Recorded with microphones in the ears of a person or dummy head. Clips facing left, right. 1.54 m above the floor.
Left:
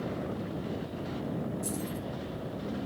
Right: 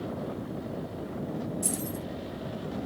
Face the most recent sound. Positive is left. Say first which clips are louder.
# right 1 dB
turn(degrees=-50)  # may be behind; listen again after turning